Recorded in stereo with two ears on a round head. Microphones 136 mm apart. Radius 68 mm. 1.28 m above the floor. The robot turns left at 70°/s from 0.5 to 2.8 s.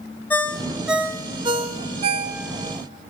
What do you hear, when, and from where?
0.3 s a ringtone: 15° left (ahead or behind), 0.6 m; by 2.8 s 25° right (ahead or behind), 0.6 m